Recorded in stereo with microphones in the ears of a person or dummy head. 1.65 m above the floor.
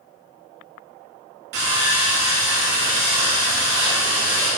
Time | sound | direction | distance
1.5 | sawing | 50° right (ahead or behind) | 3 m